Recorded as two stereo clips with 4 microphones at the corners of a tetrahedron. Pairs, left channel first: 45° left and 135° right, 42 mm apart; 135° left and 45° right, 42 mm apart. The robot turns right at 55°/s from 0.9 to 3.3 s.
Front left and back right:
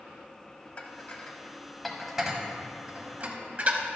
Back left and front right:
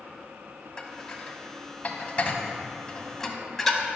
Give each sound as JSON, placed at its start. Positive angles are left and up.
{"t": 0.8, "sound": "dishes clattering", "azimuth_deg": 80, "distance_m": 0.7}